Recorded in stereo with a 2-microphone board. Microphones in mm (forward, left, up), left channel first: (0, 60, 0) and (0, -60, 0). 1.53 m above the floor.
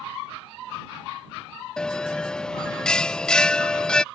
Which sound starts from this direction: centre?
A bell, at 1.8 s.